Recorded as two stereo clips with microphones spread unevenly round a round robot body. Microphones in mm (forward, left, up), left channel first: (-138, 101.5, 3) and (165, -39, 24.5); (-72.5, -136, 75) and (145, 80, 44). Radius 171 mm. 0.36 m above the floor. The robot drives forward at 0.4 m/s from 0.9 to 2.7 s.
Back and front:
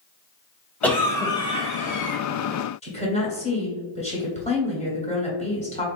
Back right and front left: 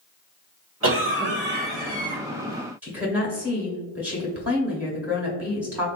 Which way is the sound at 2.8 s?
115° left.